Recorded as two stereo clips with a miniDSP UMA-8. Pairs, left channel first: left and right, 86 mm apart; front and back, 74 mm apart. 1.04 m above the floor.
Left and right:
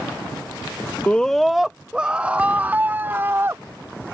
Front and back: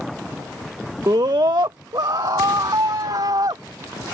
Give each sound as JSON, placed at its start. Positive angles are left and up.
{"t": 1.1, "sound": "a scream", "azimuth_deg": 160}